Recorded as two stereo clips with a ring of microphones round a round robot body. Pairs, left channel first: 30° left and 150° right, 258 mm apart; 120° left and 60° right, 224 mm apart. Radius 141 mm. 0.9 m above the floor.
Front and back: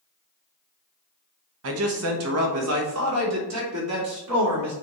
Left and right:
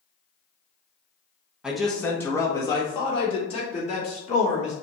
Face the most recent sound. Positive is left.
turn(degrees=180)